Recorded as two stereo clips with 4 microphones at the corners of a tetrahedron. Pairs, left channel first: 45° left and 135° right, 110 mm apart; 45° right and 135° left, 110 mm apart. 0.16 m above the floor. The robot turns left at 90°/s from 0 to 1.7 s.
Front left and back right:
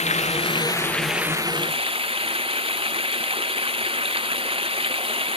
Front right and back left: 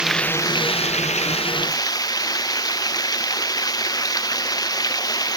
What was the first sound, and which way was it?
Running water, 55° left.